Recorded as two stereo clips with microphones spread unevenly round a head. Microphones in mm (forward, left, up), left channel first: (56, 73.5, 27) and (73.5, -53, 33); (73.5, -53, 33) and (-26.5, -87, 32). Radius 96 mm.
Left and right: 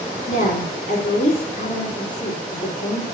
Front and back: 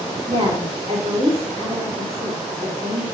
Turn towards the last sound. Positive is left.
turn(degrees=145)